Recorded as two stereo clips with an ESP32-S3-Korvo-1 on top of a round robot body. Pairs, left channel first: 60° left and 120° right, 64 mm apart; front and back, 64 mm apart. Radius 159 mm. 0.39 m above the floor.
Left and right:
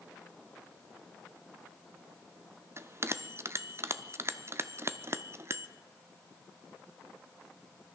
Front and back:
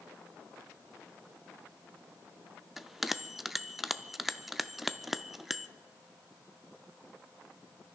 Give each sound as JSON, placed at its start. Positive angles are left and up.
{"t": 2.8, "sound": "a bell", "azimuth_deg": -95, "distance_m": 0.8}